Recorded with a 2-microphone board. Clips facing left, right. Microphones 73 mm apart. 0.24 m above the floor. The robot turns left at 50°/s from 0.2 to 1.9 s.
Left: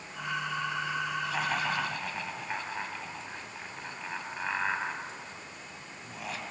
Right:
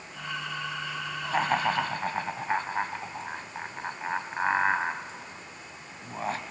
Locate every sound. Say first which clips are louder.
1.2 s laughter: right 9 dB; 35° right (ahead or behind), 1.8 m; by 6.4 s 40° right (ahead or behind), 1.8 m